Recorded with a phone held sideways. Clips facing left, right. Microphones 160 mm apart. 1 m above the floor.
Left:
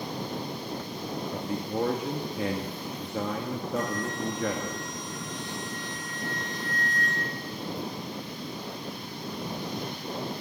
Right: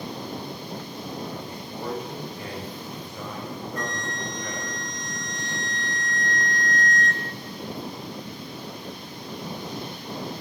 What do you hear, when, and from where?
1.3 s a man speaking: 70° left (ahead or behind), 1.6 m
3.8 s a flute: 5° left (ahead or behind), 1.1 m